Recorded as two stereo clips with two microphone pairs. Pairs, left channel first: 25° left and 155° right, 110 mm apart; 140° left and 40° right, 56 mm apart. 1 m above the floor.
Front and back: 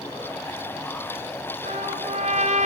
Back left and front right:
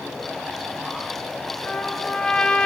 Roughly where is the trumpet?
Behind right.